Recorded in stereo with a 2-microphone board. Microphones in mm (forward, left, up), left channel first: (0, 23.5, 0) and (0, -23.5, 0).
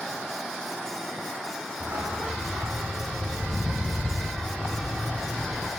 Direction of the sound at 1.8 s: 65° right (ahead or behind).